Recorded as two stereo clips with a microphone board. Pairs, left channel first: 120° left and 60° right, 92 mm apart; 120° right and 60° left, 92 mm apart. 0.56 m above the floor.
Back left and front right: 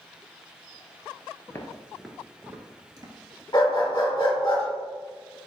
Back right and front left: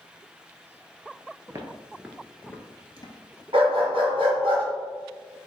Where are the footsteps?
80° left, 0.6 m; by 3.4 s 90° right, 0.9 m.